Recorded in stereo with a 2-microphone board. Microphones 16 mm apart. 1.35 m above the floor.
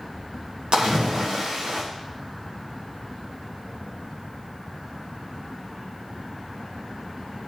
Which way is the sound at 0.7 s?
80° right.